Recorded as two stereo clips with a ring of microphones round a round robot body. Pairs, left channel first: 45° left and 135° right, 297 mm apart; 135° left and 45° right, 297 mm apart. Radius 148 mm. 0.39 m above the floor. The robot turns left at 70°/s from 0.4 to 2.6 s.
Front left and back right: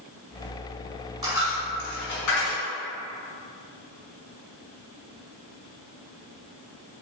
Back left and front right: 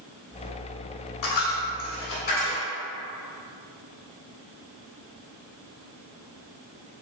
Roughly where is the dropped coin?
Behind left.